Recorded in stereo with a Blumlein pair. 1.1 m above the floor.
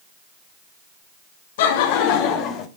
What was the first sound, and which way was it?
Laughter, 55° left.